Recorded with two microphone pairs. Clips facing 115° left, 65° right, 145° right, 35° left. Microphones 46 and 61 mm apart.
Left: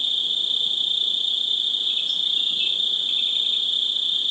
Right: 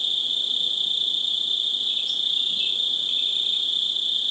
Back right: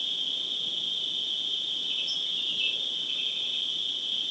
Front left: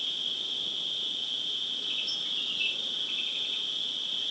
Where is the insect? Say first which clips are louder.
Left 1 dB, back right 2 dB; 60° left, 2.5 m.